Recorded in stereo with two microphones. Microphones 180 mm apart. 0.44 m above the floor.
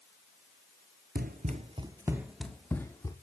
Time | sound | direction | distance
1.1 | running footsteps | 60° right (ahead or behind) | 0.8 m